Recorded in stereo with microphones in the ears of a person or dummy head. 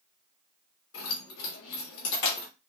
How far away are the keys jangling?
About 1.8 m.